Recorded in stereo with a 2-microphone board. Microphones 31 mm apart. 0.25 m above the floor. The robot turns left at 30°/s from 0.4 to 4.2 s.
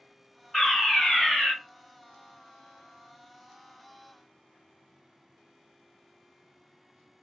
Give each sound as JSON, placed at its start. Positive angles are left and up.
{"t": 0.5, "sound": "a fire alarm", "side_deg": 15, "distance_m": 1.9}